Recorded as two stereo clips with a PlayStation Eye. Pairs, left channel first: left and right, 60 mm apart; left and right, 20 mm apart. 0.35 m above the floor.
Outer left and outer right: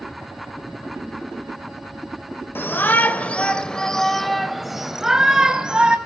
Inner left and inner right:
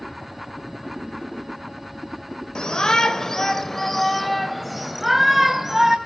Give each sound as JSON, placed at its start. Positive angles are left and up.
{"t": 2.5, "sound": "a shout", "side_deg": 35, "distance_m": 1.0}